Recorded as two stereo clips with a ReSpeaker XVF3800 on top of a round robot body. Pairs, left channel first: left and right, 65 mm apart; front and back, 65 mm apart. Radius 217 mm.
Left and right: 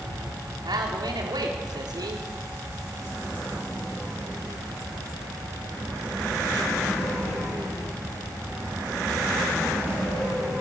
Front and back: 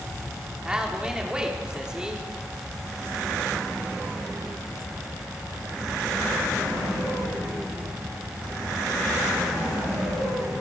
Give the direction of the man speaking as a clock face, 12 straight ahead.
3 o'clock.